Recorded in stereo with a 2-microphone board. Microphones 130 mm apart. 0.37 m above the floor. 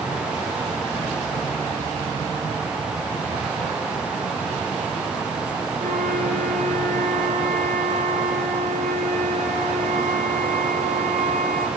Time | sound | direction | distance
5.8 | a flute | 80° right | 6 m